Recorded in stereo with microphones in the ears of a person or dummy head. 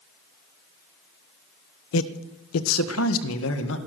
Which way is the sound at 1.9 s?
70° left (ahead or behind).